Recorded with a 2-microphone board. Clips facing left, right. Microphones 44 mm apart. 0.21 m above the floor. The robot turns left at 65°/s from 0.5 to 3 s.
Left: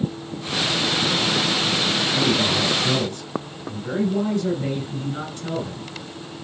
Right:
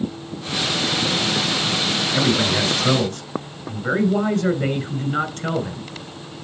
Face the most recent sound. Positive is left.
turn(degrees=-100)